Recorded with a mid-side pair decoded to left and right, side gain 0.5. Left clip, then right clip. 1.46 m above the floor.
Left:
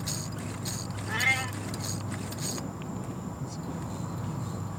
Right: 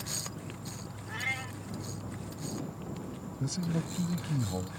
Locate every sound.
0.0 s an insect: 40° left
1.1 s a cat meowing: 50° left
3.4 s a man speaking: 60° right